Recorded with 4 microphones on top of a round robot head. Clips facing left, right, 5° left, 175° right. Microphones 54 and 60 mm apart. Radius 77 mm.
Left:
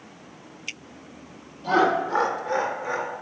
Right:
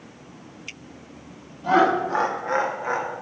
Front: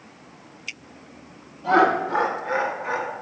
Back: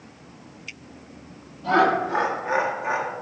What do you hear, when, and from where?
1.6 s laughter: 65° right, 1.3 m; by 3.1 s 110° right, 1.7 m